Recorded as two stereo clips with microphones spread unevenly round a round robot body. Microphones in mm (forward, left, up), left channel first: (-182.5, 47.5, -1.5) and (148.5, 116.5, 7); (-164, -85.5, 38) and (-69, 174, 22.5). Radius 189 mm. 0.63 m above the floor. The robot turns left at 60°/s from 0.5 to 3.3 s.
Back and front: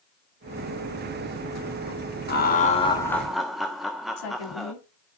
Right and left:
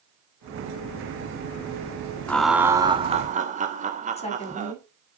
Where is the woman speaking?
Straight behind, 5.5 m.